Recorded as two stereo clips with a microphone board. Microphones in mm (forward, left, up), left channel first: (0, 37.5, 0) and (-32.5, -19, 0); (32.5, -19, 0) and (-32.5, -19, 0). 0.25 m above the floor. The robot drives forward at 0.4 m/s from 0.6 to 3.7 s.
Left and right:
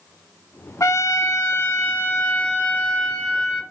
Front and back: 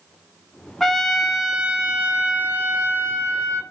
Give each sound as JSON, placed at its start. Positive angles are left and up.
{"t": 0.8, "sound": "a trumpet", "azimuth_deg": 85, "distance_m": 1.1}